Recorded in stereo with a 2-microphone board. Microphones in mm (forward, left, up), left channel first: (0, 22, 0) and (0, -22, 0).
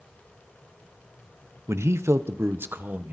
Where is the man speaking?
80° right, 0.9 m; by 3.1 s 45° right (ahead or behind), 1.4 m.